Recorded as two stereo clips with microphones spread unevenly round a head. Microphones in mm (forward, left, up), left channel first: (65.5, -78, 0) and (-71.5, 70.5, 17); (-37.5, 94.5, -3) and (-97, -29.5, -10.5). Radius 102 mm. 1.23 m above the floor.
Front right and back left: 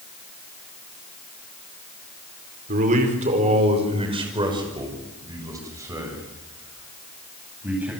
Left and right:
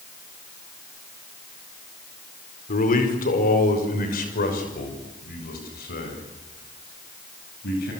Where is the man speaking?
80° left, 4.5 m; by 7.9 s 50° left, 9.5 m.